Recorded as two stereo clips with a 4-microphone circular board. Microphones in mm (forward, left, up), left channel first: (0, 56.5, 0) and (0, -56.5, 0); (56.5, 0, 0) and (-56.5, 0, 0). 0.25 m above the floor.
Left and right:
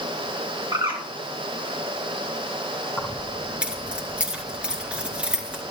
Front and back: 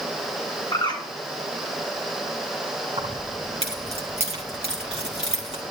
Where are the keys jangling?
170° right, 2 m.